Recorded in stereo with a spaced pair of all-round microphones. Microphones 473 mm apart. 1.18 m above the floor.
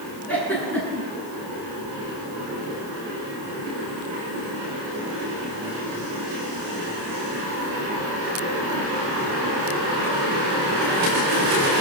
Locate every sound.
0.3 s a giggle: 5° left (ahead or behind), 9 m